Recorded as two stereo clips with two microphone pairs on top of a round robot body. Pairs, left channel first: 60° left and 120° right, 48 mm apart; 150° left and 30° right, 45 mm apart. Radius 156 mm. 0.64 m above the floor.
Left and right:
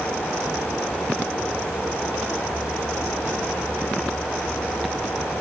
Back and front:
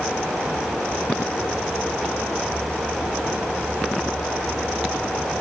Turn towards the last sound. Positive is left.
No sound to turn to.